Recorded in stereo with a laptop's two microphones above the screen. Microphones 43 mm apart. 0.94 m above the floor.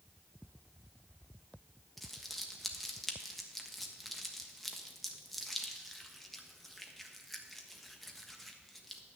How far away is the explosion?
I don't hear an explosion.